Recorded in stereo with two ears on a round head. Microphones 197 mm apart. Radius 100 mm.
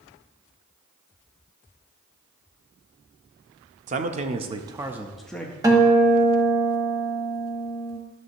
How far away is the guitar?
About 1.2 m.